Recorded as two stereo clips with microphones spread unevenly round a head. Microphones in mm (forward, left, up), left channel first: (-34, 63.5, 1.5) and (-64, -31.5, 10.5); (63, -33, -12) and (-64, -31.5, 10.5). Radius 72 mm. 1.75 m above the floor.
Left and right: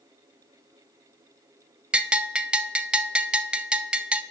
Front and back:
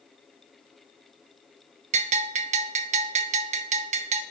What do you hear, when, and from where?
1.9 s a bell: 175° left, 0.5 m